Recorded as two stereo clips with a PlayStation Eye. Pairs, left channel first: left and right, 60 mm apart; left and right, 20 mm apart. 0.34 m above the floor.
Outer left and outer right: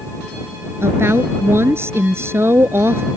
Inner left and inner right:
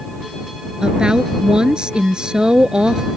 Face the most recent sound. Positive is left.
turn(degrees=-45)  # may be behind; listen again after turning